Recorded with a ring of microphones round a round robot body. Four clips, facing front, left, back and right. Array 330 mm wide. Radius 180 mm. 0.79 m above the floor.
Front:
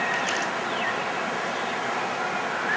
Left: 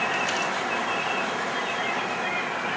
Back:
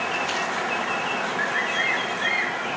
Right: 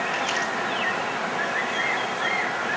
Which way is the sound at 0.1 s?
15° right.